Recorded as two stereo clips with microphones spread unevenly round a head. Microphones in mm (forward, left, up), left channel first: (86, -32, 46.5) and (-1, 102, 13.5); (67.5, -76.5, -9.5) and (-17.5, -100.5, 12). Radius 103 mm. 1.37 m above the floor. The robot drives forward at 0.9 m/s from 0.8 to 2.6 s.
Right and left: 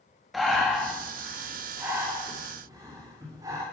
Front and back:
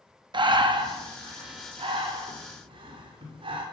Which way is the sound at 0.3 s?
145° right.